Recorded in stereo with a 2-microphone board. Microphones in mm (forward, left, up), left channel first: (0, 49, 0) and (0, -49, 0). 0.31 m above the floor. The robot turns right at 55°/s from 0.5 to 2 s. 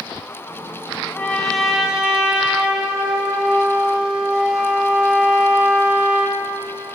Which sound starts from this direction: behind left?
A trumpet, at 1.1 s.